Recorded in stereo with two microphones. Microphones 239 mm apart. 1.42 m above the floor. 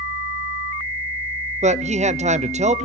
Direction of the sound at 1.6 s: 30° right (ahead or behind).